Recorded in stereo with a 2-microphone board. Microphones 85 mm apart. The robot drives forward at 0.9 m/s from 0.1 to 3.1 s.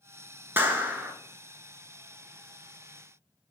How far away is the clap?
About 0.9 m.